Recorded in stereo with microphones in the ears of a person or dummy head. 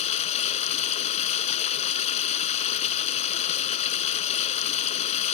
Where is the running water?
40° left (ahead or behind).